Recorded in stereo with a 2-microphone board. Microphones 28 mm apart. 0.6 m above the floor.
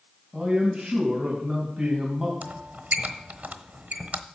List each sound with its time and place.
0.3 s a man speaking: 20° right (ahead or behind), 3 m
2.4 s a squeak: 75° right (ahead or behind), 1.0 m